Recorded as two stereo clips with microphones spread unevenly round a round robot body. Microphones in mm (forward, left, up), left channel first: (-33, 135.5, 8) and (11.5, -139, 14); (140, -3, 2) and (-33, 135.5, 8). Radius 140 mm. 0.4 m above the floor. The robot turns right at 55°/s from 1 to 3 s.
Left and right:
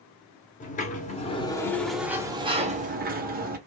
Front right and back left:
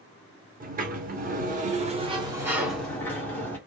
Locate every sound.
0.6 s a sliding door: 135° left, 0.8 m; by 3.6 s 115° right, 0.8 m